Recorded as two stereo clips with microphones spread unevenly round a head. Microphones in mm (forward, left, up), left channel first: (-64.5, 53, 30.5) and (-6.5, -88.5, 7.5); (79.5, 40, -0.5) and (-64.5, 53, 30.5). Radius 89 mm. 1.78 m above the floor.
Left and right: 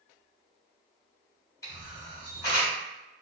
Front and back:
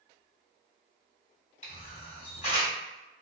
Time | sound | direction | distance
1.6 | a camera shutter | 40° left | 1.2 m